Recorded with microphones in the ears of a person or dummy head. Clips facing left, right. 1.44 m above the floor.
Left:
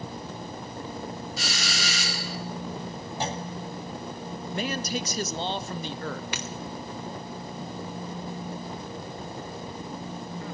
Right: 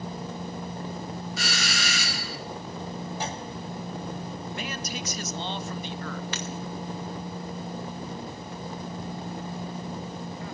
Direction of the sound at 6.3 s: 15° left (ahead or behind).